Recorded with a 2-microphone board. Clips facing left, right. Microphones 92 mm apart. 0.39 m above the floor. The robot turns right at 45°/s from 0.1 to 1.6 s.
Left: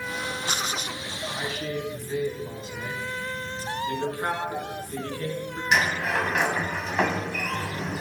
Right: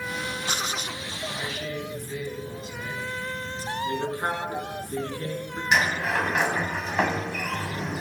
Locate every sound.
1.3 s a man speaking: 20° left (ahead or behind), 3.5 m; by 3.6 s 30° left (ahead or behind), 3.5 m
3.9 s a man speaking: 25° right (ahead or behind), 5.5 m
5.7 s a sliding door: 10° right (ahead or behind), 2 m